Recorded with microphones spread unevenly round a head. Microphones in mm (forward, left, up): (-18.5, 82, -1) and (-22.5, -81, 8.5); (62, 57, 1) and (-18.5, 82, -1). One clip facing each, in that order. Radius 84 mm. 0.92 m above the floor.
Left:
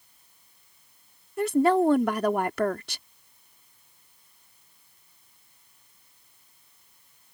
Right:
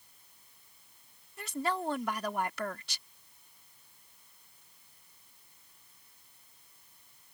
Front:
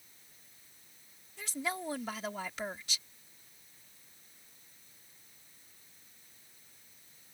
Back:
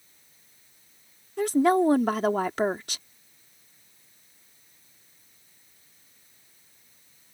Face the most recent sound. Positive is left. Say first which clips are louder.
# left 14 dB, back 18 dB
turn(degrees=130)